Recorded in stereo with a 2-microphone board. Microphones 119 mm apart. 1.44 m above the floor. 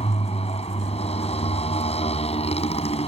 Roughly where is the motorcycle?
Left.